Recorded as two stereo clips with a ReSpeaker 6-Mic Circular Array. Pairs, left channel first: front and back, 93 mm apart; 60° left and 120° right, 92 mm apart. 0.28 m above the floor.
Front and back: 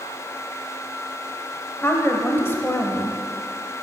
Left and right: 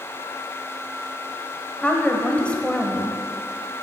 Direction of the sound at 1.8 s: Straight ahead.